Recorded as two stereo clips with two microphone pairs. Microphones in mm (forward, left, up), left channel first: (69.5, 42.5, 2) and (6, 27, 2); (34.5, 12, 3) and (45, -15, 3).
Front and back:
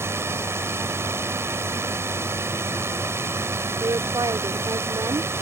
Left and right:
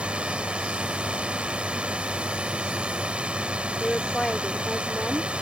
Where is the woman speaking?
175° right.